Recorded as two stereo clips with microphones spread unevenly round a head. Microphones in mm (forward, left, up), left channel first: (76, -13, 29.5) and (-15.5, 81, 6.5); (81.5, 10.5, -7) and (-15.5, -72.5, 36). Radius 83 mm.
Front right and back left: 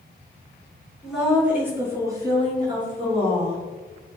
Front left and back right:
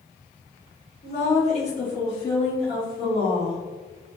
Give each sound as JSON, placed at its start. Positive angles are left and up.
{"t": 1.0, "sound": "a woman speaking", "azimuth_deg": 50, "distance_m": 1.8}